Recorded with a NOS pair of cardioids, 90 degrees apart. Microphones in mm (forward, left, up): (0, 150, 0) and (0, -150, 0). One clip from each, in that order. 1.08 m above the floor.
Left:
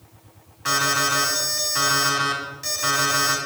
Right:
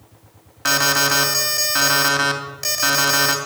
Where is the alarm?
65° right, 3 m.